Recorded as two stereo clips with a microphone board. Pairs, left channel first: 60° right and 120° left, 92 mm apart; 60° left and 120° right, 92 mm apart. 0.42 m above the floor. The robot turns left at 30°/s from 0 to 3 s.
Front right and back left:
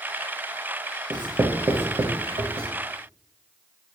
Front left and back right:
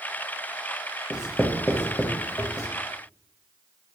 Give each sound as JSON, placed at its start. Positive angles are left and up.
{"t": 1.1, "sound": "writing", "azimuth_deg": 160, "distance_m": 0.5}